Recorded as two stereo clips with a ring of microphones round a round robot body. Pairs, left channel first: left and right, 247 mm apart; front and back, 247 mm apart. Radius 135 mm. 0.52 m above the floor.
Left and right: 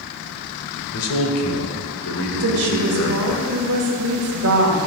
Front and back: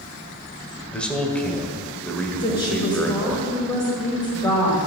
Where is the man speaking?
85° left, 1.7 m.